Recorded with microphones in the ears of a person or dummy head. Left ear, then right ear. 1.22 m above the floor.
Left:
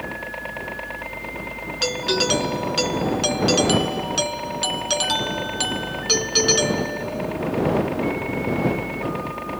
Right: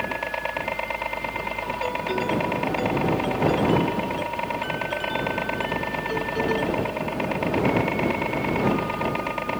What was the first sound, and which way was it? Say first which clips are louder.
A helicopter: right 3 dB; 35° right (ahead or behind).